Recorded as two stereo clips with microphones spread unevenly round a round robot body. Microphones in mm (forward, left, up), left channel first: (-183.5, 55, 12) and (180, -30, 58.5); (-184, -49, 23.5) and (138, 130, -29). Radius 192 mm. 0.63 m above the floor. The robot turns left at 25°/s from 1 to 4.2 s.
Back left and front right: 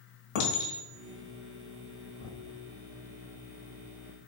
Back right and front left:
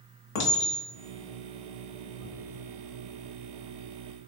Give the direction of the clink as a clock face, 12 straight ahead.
6 o'clock.